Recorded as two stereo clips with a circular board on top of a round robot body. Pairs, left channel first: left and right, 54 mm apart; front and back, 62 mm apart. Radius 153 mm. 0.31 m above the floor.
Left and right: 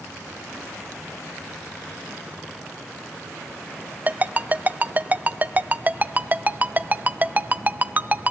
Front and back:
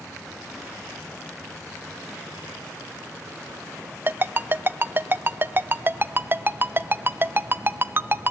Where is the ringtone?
135° right, 0.6 m.